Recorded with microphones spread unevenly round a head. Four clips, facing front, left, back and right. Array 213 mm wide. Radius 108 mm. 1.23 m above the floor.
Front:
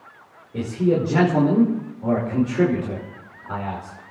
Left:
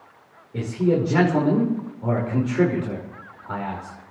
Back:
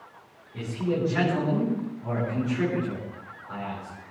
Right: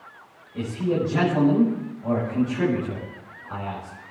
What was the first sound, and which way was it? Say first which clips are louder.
A man speaking: left 3 dB, front 7 dB; 55° left.